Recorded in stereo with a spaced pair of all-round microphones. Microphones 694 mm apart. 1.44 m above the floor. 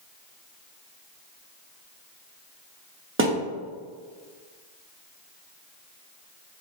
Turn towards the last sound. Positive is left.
turn(degrees=-20)  # may be behind; listen again after turning